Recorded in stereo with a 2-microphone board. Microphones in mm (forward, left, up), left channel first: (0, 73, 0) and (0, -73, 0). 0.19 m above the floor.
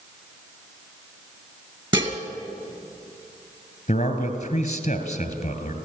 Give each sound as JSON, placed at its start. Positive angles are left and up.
{"t": 1.9, "sound": "dishes clattering", "side_deg": -30, "distance_m": 1.9}
{"t": 3.9, "sound": "a man speaking", "side_deg": 50, "distance_m": 2.5}